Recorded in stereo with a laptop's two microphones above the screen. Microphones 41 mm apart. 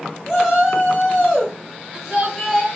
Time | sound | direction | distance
0.3 | a shout | 10° left (ahead or behind) | 5.5 m